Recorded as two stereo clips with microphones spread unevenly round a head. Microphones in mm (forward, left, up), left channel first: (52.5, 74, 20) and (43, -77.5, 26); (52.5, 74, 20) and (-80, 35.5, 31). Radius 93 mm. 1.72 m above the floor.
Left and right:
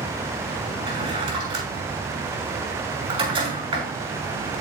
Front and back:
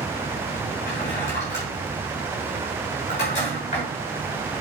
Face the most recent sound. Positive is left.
turn(degrees=-40)